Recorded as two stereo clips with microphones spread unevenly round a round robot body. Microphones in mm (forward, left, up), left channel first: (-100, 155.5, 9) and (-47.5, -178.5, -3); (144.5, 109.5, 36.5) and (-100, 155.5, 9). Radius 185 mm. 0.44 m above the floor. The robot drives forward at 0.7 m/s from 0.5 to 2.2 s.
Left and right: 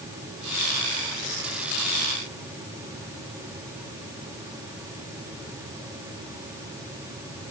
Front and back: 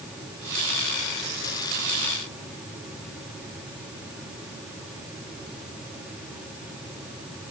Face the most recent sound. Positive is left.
No sound to turn to.